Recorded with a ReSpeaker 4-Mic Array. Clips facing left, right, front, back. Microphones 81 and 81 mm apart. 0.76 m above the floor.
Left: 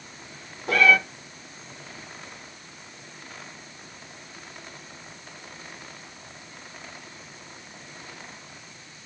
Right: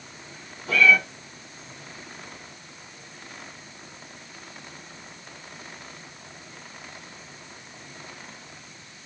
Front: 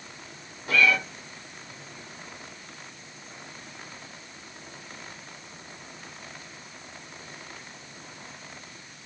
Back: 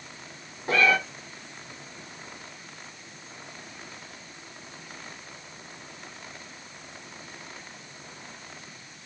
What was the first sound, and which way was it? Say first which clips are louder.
A cat meowing: even, back 1 dB; 120° left.